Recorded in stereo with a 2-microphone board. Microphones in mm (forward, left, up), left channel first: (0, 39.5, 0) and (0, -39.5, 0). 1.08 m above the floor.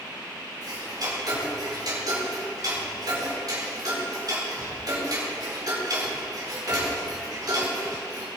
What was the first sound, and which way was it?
Ticking, 55° right (ahead or behind).